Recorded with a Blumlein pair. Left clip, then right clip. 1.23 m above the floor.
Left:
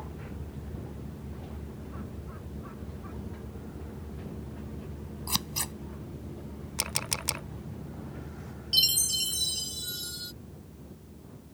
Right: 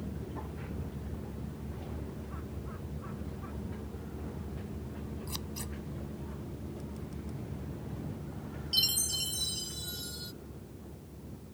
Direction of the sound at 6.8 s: 45° left.